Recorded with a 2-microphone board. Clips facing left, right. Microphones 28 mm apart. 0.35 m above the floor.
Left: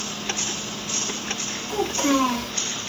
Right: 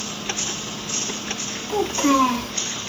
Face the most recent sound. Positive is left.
turn(degrees=-35)  # may be behind; listen again after turning